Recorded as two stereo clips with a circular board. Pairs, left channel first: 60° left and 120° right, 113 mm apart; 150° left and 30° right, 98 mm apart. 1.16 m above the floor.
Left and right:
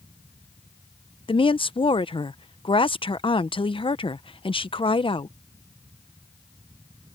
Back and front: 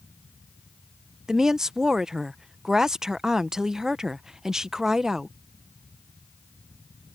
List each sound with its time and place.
1.3 s a woman speaking: 50° left